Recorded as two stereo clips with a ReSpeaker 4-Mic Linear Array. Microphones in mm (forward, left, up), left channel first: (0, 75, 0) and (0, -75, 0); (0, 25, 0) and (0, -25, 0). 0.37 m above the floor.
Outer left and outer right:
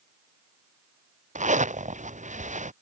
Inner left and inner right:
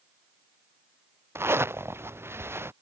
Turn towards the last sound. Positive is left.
turn(degrees=-55)  # may be behind; listen again after turning